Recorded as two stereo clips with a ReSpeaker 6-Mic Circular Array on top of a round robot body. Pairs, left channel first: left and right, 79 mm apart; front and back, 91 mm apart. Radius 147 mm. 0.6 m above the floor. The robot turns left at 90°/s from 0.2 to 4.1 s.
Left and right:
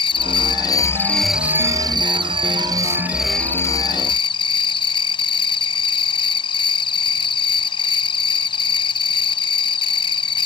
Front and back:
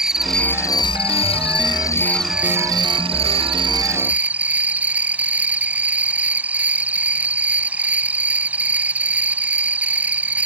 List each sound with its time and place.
0.0 s an insect: 95° left; by 10.5 s 105° left